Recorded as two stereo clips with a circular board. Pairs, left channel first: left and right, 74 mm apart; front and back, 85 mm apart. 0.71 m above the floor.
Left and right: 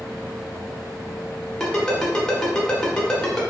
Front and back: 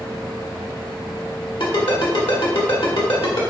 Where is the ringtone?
10° left, 1.0 m.